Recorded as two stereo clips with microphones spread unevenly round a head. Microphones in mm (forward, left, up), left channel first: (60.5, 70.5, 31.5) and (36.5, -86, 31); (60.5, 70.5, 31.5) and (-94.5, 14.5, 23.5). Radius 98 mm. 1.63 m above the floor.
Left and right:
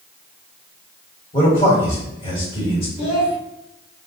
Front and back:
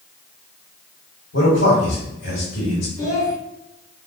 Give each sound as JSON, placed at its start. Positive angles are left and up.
{"t": 1.3, "sound": "a man speaking", "azimuth_deg": 25, "distance_m": 1.6}
{"t": 3.0, "sound": "a child speaking", "azimuth_deg": 65, "distance_m": 1.0}